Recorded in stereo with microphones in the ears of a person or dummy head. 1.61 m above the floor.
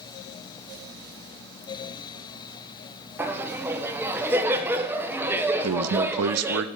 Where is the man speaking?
85° right, 0.6 m.